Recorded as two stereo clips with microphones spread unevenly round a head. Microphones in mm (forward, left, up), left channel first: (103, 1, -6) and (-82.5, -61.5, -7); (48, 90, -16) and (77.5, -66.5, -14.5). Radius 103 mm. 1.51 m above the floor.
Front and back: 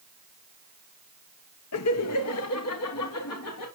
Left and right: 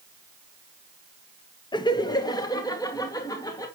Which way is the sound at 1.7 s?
35° left.